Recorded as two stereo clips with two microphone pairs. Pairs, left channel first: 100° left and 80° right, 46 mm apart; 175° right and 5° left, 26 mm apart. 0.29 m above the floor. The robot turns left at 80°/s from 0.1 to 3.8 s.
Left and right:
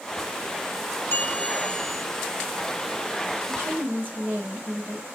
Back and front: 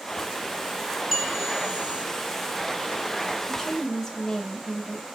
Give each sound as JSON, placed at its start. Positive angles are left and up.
{"t": 1.1, "sound": "a bell", "azimuth_deg": 75, "distance_m": 2.0}
{"t": 3.5, "sound": "a woman speaking", "azimuth_deg": -85, "distance_m": 1.4}